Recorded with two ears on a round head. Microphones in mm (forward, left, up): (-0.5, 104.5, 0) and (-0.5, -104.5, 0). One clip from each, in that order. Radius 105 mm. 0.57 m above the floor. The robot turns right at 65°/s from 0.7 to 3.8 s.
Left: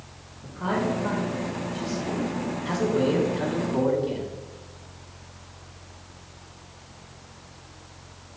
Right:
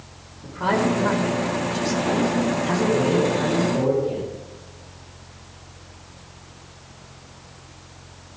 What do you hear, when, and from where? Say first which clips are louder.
0.4 s a man speaking: right 5 dB; 120° right, 5.5 m; by 4.3 s 85° left, 5.5 m